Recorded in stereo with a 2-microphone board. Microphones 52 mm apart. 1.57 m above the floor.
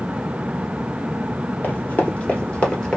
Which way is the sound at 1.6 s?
35° left (ahead or behind).